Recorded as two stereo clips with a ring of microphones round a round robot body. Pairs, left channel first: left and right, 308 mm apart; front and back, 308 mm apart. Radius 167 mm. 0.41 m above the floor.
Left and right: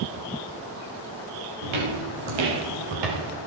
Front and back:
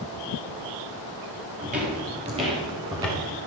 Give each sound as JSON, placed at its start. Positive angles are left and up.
{"t": 1.6, "sound": "footsteps", "azimuth_deg": -110, "distance_m": 5.5}